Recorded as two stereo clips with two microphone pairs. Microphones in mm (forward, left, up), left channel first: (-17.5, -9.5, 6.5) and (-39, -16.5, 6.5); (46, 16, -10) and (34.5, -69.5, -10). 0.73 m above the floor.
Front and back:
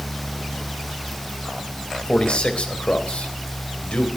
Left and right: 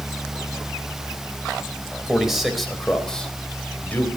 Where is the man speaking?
15° right, 4 m; by 4.1 s 15° left, 3.5 m.